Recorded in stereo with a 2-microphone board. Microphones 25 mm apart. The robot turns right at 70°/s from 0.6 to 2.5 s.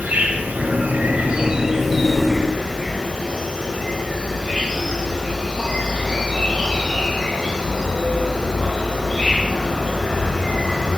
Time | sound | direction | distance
0.0 | an insect | 100° right | 1.2 m